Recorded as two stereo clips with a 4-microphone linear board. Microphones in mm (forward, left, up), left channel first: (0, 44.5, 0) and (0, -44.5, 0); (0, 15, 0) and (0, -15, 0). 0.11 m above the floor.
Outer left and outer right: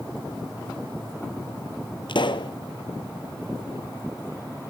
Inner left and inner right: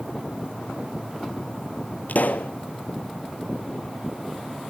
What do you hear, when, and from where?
2.1 s a pop: 65° left (ahead or behind), 0.8 m